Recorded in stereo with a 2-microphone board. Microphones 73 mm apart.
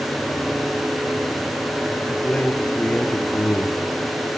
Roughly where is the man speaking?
Centre.